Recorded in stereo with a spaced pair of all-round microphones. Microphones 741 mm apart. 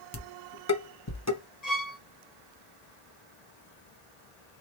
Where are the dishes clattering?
25° left (ahead or behind), 0.7 m.